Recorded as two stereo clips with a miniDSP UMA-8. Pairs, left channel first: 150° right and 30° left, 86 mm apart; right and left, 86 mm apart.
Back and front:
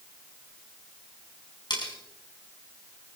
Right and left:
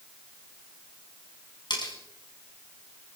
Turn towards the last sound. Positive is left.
turn(degrees=-120)